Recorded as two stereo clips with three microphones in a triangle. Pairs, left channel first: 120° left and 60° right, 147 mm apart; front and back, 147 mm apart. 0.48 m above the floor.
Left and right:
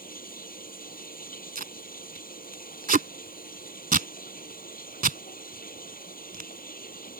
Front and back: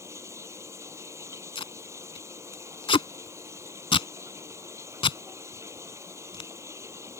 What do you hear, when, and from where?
0.0 s running water: 110° left
1.6 s tape being pulled: 55° right